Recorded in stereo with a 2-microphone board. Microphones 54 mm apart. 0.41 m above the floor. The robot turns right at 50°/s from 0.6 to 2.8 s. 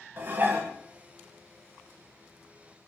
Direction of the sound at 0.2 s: 40° right (ahead or behind).